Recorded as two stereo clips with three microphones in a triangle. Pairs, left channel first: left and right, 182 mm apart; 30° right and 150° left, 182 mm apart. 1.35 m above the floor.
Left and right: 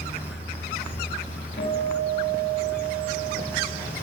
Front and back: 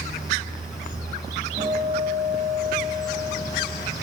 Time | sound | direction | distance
1.6 | a guitar | 110° left | 8 m